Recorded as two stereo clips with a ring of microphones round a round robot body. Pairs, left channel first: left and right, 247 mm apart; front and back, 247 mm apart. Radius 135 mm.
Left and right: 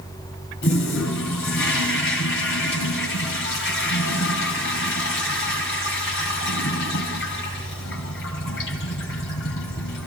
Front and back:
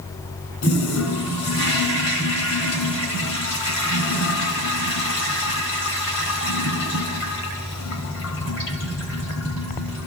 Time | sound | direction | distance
0.6 | a toilet flushing | 40° left | 6 m